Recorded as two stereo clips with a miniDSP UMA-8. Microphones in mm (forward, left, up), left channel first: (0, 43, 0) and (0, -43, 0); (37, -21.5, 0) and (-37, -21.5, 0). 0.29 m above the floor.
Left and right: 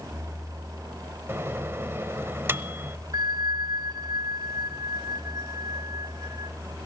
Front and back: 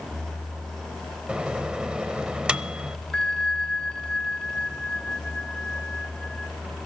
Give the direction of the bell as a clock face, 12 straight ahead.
3 o'clock.